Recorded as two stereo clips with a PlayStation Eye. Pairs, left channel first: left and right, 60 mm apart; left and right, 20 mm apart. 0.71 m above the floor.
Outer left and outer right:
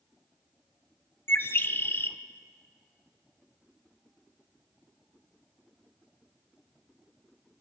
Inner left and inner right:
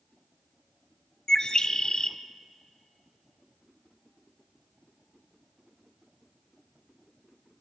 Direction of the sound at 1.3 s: 35° left (ahead or behind).